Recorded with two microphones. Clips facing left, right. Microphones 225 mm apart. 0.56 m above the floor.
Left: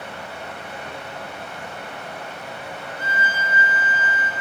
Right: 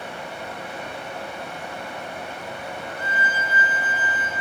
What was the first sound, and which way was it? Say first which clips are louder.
Running water: right 1 dB; 15° right (ahead or behind).